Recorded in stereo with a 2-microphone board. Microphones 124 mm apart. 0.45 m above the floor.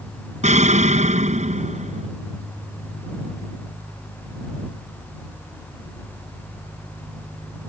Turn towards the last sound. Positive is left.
turn(degrees=-70)  # may be behind; listen again after turning